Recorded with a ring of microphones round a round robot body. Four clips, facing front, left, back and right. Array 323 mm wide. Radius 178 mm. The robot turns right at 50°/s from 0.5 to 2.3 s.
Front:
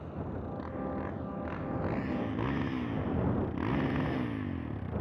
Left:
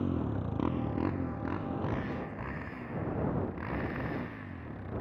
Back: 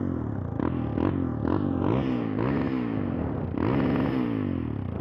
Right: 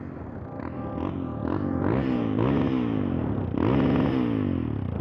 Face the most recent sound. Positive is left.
turn(degrees=-120)